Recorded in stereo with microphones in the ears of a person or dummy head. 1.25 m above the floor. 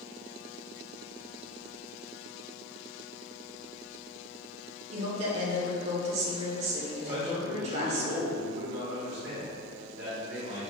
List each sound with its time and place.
4.9 s a woman speaking: 40° right (ahead or behind), 0.8 m
7.0 s a man speaking: 55° right (ahead or behind), 1.2 m